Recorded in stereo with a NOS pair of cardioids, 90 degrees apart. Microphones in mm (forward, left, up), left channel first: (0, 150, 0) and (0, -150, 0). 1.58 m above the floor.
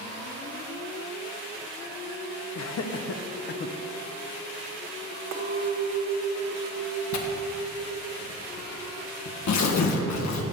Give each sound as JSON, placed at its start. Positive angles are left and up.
{"t": 2.5, "sound": "laughter", "azimuth_deg": 65, "distance_m": 1.3}
{"t": 5.3, "sound": "a clink", "azimuth_deg": -50, "distance_m": 1.6}
{"t": 7.1, "sound": "tearing paper", "azimuth_deg": 65, "distance_m": 1.5}